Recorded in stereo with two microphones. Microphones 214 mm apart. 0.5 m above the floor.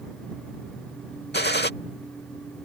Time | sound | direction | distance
1.3 | a gunshot | 50° left (ahead or behind) | ?